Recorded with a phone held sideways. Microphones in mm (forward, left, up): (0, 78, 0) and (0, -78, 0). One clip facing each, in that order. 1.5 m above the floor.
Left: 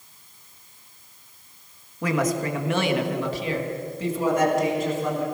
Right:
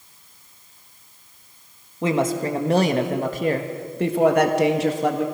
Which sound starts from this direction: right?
A woman speaking, at 2.0 s.